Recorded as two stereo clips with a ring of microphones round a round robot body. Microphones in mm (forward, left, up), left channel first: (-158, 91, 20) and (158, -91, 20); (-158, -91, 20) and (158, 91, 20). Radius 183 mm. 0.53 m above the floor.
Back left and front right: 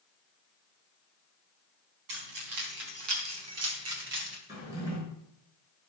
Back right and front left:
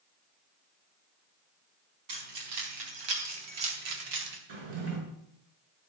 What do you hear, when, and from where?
2.1 s keys jangling: 10° left, 4 m; by 4.4 s 35° left, 2 m
4.5 s a drawer: 50° left, 5 m